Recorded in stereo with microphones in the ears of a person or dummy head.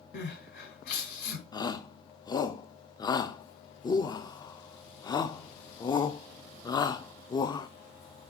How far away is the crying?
About 2.5 m.